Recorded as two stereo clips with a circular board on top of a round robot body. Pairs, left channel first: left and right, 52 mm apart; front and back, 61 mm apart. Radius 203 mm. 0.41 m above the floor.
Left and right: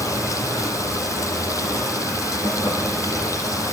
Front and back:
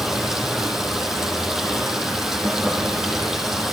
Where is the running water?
100° left, 5.5 m.